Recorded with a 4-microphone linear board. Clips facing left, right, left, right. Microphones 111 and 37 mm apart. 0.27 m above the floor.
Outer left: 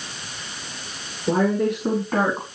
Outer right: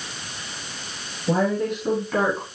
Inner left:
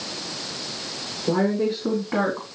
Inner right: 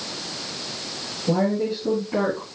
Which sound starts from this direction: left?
A woman speaking, at 1.3 s.